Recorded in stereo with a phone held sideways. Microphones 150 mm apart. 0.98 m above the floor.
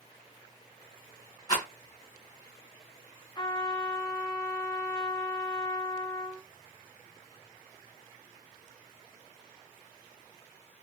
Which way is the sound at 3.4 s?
30° left (ahead or behind).